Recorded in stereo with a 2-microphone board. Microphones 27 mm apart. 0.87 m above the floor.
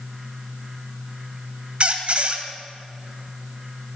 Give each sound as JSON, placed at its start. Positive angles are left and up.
{"t": 1.8, "sound": "a squeak", "side_deg": -45, "distance_m": 1.4}